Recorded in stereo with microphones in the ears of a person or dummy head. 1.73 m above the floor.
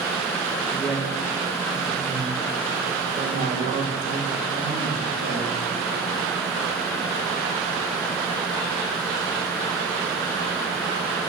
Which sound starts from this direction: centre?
A woman speaking, at 0.7 s.